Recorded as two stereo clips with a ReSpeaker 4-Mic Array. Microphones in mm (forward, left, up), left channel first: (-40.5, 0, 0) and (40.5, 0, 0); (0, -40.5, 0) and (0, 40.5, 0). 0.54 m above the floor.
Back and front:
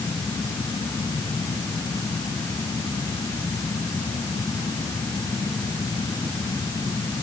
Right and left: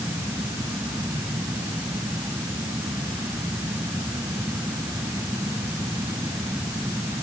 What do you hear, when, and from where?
Only background noise.